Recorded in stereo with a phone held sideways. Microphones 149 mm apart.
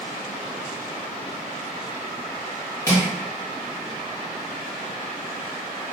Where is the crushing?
20° left (ahead or behind), 0.9 m.